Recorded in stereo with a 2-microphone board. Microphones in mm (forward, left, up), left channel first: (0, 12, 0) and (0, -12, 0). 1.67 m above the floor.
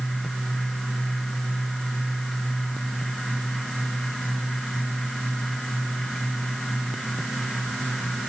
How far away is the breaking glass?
I don't hear breaking glass.